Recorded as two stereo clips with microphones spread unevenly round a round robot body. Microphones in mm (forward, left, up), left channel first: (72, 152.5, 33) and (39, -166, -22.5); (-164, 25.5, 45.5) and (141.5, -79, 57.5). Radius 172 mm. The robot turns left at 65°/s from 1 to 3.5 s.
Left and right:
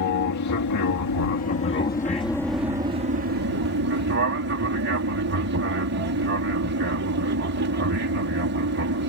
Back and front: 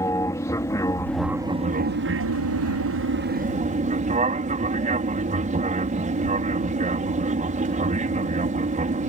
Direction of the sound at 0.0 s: 85° left.